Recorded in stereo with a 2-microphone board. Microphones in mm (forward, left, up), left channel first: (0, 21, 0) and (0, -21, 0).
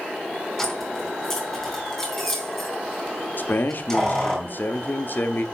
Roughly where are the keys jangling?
Centre.